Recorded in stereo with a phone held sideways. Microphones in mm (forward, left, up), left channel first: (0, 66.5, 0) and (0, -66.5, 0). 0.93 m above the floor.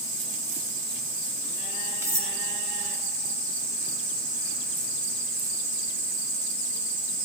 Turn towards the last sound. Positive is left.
turn(degrees=-20)  # may be behind; listen again after turning